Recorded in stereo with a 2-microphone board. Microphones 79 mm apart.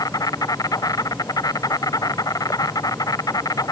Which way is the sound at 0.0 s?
50° left (ahead or behind).